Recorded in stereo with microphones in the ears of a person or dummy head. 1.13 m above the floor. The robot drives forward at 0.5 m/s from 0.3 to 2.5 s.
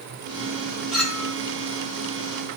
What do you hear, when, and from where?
0.9 s a clink: 5° right (ahead or behind), 1.0 m